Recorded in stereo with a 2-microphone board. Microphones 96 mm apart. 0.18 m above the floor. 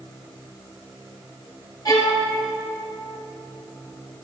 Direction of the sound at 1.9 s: 45° left (ahead or behind).